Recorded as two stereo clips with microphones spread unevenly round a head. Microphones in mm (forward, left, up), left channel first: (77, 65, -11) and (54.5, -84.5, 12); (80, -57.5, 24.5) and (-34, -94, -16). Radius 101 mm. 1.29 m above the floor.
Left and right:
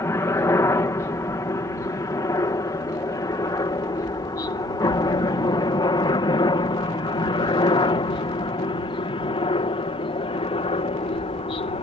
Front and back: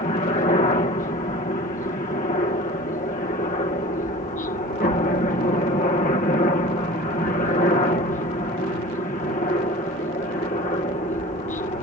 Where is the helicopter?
15° left; by 11.8 s 50° left.